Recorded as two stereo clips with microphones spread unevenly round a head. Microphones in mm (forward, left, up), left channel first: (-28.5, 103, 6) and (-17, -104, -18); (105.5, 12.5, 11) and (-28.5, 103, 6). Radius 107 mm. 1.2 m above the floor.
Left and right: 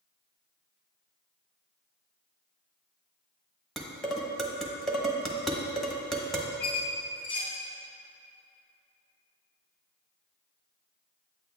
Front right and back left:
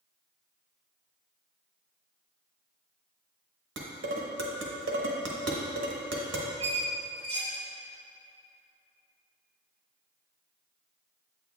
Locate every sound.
3.8 s dishes clattering: straight behind, 0.9 m
6.6 s a squeak: 100° left, 2.5 m